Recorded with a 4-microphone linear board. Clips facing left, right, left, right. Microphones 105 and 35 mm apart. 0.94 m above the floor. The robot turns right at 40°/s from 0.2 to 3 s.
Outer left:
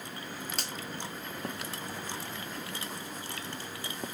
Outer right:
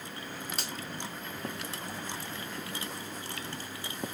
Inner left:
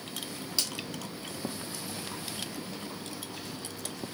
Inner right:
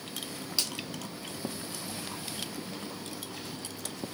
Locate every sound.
0.6 s a finger snap: centre (ahead or behind), 1.5 m; by 0.7 s 10° right (ahead or behind), 1.5 m